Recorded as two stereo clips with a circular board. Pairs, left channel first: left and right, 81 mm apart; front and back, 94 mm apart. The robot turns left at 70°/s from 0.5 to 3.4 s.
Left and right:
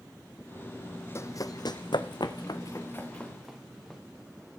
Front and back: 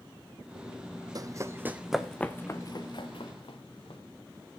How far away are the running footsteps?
About 0.6 m.